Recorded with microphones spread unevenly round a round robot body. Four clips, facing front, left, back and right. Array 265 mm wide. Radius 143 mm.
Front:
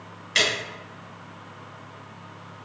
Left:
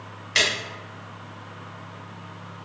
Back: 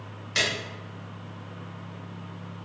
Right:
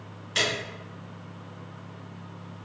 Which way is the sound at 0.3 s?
70° left.